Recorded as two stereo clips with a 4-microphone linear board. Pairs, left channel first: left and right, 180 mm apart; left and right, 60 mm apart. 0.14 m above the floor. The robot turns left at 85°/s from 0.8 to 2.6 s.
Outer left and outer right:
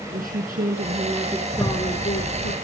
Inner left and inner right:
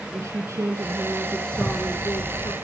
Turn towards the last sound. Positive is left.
turn(degrees=-65)